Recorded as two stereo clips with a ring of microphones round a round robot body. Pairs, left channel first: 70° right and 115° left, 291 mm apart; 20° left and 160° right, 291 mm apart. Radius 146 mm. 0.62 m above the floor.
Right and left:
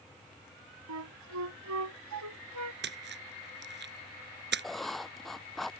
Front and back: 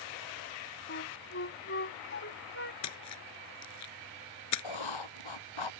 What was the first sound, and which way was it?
A flute, 75° left.